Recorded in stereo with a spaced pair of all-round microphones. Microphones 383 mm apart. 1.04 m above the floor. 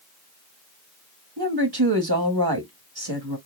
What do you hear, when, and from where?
1.4 s a woman speaking: 75° right (ahead or behind), 1.8 m